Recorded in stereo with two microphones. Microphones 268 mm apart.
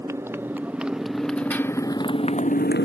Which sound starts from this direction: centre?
A motorcycle, at 0.0 s.